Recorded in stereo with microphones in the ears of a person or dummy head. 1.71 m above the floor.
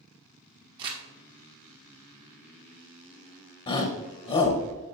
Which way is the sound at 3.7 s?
25° left (ahead or behind).